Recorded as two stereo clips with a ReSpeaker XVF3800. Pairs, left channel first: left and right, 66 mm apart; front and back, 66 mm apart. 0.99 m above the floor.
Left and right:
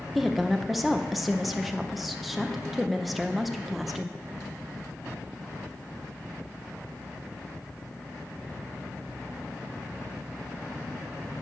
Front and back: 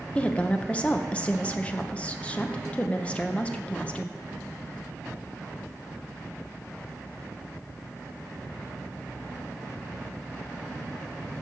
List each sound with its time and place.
0.1 s a woman speaking: 5° right, 0.5 m